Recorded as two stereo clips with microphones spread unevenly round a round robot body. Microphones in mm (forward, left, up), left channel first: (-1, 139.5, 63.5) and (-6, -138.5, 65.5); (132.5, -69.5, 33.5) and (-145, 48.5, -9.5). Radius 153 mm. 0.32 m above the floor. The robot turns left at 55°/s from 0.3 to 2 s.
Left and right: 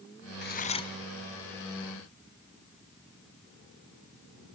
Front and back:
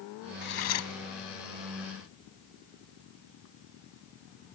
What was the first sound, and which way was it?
Cutlery clinking, 40° left.